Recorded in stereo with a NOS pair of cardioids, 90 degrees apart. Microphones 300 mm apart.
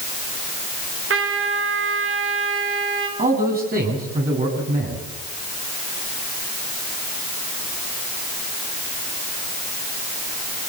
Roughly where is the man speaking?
Ahead right.